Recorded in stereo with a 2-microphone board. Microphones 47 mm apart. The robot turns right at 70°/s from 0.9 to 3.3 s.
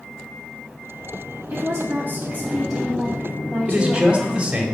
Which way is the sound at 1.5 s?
95° right.